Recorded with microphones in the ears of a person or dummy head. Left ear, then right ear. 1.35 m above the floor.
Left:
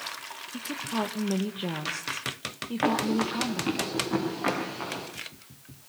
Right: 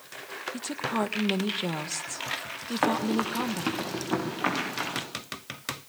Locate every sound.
0.5 s a woman speaking: 25° right (ahead or behind), 1.5 m
2.8 s running footsteps: 30° right (ahead or behind), 9 m; by 5.0 s 40° right (ahead or behind), 10.5 m